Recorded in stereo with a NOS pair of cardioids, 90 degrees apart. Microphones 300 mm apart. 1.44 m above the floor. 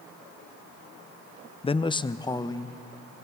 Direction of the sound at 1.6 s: 20° left.